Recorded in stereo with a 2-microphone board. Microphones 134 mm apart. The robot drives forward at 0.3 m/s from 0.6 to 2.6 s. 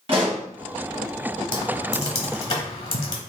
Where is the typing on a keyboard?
35° left (ahead or behind), 1.2 m; by 3.2 s 45° left (ahead or behind), 1.1 m.